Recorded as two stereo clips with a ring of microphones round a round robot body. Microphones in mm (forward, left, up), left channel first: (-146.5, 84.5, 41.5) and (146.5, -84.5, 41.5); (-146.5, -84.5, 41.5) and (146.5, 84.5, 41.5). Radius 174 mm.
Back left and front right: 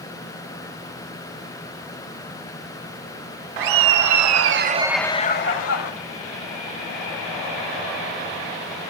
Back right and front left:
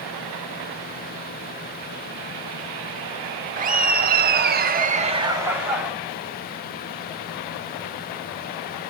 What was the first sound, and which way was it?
Laughter, 35° right.